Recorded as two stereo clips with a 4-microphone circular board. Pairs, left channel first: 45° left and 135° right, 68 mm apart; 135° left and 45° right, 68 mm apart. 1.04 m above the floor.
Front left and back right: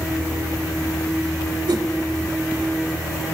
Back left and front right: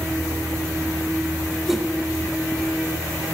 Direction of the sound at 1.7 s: 130° right.